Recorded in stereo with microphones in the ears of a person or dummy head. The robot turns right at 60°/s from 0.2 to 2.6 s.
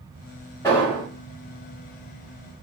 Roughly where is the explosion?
Centre.